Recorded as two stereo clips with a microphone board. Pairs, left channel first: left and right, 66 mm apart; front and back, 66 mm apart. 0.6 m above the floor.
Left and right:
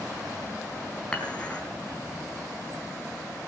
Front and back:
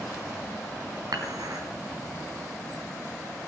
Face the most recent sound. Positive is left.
turn(degrees=160)